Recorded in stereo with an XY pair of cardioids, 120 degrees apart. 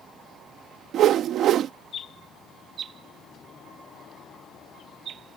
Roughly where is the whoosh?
Ahead right.